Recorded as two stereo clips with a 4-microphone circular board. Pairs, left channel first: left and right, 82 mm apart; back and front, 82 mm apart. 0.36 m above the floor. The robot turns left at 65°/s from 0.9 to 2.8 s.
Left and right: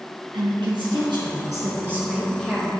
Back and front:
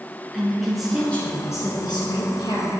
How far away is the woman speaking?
About 4 m.